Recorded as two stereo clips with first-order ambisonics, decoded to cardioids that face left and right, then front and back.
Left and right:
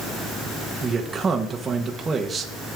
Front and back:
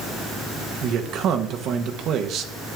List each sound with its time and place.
0.8 s a man speaking: 160° right, 0.7 m